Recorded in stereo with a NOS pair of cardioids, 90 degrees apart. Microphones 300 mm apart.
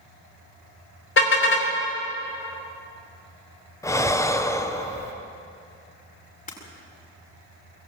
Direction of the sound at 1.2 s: 45° left.